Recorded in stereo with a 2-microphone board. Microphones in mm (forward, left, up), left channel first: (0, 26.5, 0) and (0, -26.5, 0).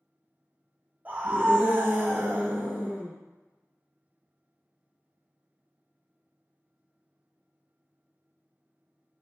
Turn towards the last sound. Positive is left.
turn(degrees=-25)  # may be behind; listen again after turning